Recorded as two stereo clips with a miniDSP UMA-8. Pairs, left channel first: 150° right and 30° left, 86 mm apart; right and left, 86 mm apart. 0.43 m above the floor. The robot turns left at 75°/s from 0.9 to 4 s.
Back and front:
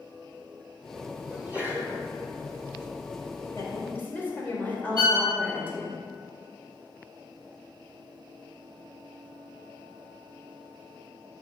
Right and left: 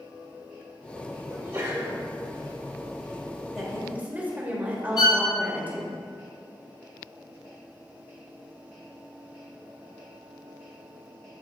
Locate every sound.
1.3 s a sneeze: 100° left, 1.5 m; by 2.0 s 45° left, 1.5 m
3.5 s a woman speaking: 175° right, 1.6 m; by 6.0 s 150° left, 1.6 m
5.0 s a violin: 75° right, 1.4 m